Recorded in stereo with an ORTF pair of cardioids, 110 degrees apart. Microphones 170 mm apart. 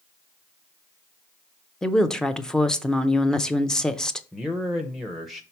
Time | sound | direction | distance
1.8 | a woman speaking | 5° left | 0.7 m
4.3 | a man speaking | straight ahead | 0.8 m